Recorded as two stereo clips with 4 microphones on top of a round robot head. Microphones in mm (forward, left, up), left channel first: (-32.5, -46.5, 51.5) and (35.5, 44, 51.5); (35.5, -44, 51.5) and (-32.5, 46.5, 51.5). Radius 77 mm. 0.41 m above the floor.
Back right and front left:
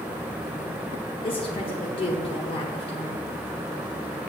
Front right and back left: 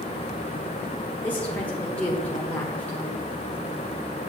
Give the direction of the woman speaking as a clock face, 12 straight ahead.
4 o'clock.